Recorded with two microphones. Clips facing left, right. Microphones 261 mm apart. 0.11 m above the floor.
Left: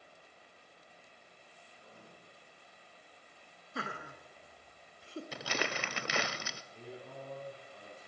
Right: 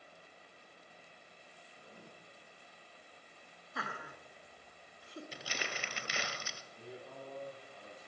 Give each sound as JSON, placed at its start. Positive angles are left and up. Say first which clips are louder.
{"t": 1.8, "sound": "writing", "louder": "right 2 dB", "side_deg": -30, "distance_m": 4.5}
{"t": 3.8, "sound": "laughter", "louder": "left 4 dB", "side_deg": 30, "distance_m": 1.2}
{"t": 5.3, "sound": "crumpling", "louder": "left 9 dB", "side_deg": 70, "distance_m": 0.7}
{"t": 6.7, "sound": "a man speaking", "louder": "left 1 dB", "side_deg": 45, "distance_m": 7.5}